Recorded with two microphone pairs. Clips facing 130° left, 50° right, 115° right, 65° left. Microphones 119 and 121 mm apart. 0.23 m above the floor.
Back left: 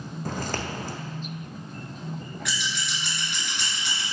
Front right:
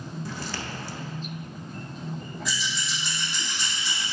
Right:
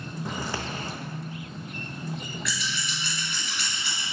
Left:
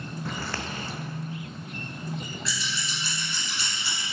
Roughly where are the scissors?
Behind left.